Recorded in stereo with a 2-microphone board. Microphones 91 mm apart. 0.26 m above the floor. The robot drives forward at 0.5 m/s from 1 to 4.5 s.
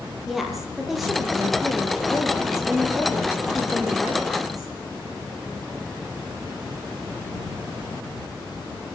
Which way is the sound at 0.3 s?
Centre (ahead or behind).